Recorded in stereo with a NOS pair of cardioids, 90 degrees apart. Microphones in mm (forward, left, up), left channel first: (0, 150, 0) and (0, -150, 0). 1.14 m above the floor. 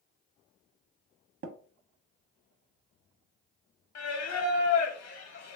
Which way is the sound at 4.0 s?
65° left.